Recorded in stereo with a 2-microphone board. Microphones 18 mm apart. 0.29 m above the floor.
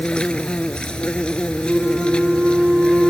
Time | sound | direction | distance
0.0 | an insect | 85° left | ?
1.6 | a flute | 40° right (ahead or behind) | ?